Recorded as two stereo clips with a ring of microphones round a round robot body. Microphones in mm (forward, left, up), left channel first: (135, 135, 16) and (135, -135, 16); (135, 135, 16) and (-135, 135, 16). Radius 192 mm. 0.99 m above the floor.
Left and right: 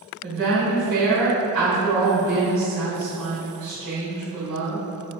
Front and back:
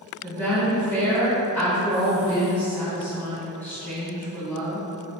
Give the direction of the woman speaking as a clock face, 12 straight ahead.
3 o'clock.